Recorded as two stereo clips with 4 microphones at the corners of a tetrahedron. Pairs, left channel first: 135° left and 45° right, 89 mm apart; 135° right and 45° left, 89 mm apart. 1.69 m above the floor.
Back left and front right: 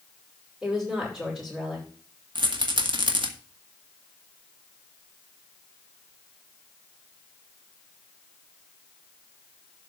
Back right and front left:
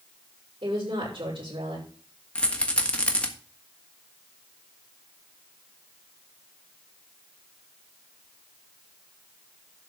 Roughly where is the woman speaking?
Ahead left.